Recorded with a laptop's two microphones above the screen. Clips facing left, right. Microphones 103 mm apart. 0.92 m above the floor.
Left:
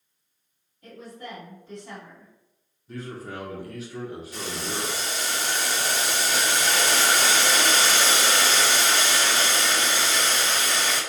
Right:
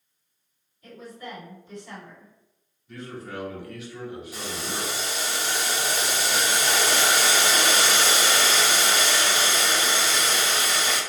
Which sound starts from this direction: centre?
Boiling, at 4.3 s.